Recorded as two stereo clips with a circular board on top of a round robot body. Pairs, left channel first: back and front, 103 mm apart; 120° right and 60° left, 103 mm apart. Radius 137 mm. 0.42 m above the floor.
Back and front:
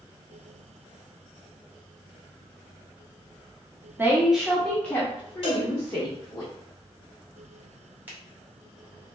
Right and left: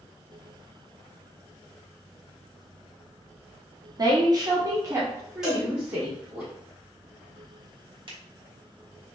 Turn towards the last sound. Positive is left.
turn(degrees=70)